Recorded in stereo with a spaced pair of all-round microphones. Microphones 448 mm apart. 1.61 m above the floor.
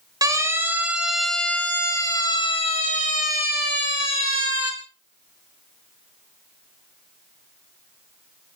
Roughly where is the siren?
Centre.